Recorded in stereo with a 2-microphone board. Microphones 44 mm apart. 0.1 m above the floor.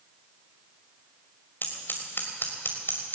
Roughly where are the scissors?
Left.